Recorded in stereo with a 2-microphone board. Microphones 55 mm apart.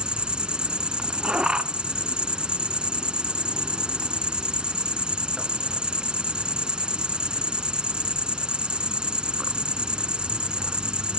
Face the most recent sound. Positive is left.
turn(degrees=-20)  # may be behind; listen again after turning